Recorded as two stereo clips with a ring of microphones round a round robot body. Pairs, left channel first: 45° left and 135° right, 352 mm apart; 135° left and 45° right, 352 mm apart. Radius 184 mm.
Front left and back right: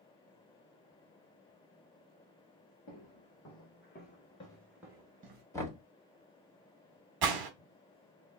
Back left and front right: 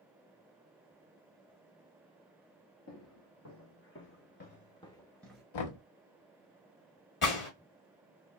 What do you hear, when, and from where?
2.9 s footsteps: 85° left, 1.3 m; by 5.4 s 130° right, 0.8 m
5.5 s knocking: 125° left, 1.0 m
7.2 s a gunshot: 165° right, 1.0 m